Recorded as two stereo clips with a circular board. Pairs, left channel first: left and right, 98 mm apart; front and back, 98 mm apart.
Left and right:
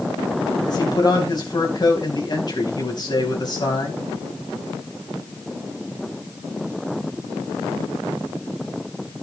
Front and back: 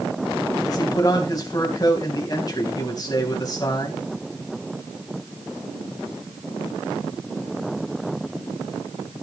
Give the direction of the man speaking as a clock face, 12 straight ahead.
10 o'clock.